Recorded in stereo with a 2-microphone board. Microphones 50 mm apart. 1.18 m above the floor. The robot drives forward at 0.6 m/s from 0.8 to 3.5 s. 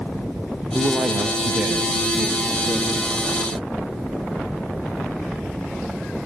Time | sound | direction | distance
0.7 | a woman speaking | 25° right (ahead or behind) | 1.0 m